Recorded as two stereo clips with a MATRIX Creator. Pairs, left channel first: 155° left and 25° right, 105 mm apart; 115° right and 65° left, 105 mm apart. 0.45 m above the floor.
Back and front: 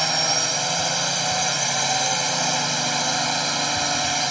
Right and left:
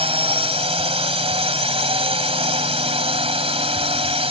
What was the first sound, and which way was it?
A drone, 65° left.